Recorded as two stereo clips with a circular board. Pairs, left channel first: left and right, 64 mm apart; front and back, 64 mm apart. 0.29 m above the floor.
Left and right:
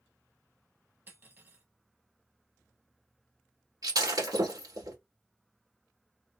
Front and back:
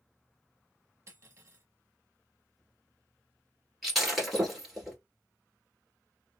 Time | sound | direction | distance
1.1 | cutlery clinking | 140° right | 1.0 m
3.8 | breaking glass | 95° right | 1.8 m